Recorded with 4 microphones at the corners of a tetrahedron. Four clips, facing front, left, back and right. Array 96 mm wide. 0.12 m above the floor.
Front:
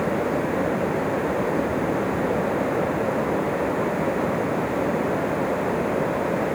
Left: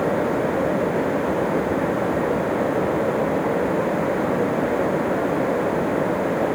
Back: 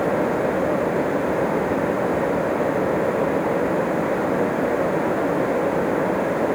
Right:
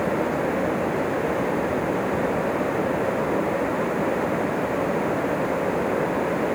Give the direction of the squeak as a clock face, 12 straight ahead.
I don't hear a squeak.